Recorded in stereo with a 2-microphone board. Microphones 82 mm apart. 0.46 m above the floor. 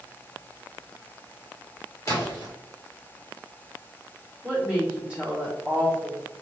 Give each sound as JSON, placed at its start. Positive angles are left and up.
{"t": 2.1, "sound": "a splash", "side_deg": 35, "distance_m": 1.0}
{"t": 4.4, "sound": "a woman speaking", "side_deg": -15, "distance_m": 1.2}